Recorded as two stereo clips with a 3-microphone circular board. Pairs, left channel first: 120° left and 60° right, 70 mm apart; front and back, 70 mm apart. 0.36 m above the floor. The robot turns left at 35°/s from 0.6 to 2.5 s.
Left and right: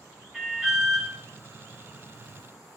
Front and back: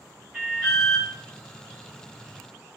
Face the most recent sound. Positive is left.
turn(degrees=170)